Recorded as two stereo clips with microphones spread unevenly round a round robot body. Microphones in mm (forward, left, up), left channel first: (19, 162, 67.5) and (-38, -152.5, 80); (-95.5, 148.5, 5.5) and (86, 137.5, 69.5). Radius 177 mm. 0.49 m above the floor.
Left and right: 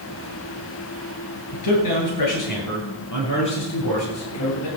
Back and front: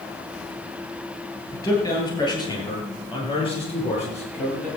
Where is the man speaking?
105° left, 8.5 m; by 4.7 s 125° left, 10.5 m.